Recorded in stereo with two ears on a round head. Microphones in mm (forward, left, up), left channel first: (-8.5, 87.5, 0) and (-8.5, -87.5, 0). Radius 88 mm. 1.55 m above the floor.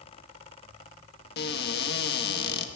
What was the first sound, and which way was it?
A cupboard door, 55° left (ahead or behind).